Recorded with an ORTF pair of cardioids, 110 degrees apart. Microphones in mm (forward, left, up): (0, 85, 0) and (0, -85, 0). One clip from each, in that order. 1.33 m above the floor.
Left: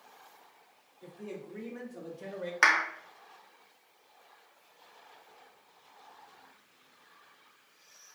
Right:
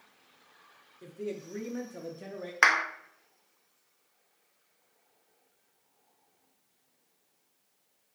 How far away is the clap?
About 0.5 m.